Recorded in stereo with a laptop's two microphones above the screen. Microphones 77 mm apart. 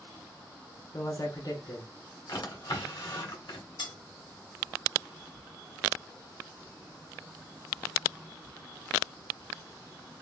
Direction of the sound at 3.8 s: 85° left.